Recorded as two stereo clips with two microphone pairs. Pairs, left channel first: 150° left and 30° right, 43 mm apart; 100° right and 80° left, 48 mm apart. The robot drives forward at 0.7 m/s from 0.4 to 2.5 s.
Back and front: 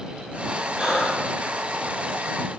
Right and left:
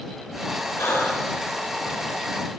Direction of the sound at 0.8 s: 100° right.